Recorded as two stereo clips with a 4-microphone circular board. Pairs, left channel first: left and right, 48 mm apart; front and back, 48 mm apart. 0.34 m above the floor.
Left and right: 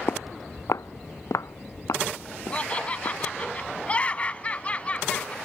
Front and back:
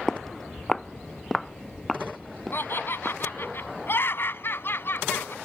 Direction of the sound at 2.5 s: 30° left.